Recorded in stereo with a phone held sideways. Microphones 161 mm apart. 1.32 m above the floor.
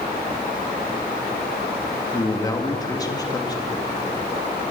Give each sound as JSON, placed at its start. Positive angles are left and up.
{"t": 2.1, "sound": "a man speaking", "side_deg": 20, "distance_m": 2.0}